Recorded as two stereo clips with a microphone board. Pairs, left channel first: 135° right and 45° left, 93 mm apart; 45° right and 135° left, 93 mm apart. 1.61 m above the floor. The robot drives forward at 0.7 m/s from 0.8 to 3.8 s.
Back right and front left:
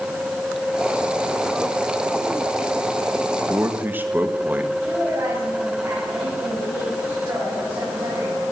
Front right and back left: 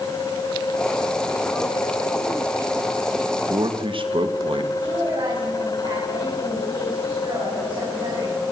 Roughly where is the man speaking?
Left.